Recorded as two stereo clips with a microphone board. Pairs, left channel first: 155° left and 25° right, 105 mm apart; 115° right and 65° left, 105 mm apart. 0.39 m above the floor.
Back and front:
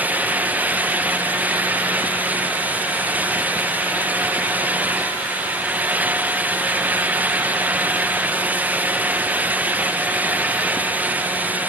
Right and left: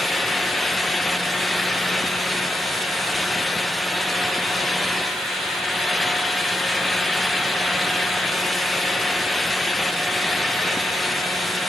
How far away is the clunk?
No clunk in this recording.